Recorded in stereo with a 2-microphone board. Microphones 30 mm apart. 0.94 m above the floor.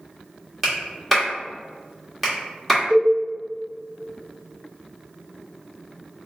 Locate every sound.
0.6 s a clap: centre (ahead or behind), 1.3 m
2.9 s a cowbell: 25° right (ahead or behind), 1.3 m